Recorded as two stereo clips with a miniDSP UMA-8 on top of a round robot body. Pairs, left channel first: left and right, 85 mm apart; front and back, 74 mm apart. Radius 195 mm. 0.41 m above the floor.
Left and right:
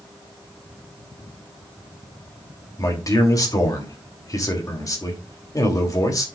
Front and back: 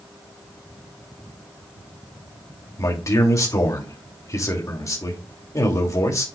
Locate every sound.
2.8 s a man speaking: 45° left, 3 m